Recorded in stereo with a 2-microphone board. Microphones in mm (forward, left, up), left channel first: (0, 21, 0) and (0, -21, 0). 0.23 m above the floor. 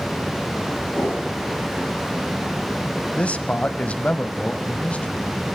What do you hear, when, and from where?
0.9 s a whoosh: 30° left (ahead or behind), 10 m
3.1 s a man speaking: 30° left (ahead or behind), 1.0 m